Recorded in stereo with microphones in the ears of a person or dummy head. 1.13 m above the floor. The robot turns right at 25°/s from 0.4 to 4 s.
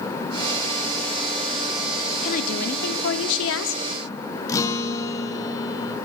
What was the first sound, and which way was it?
A woman speaking, 50° left.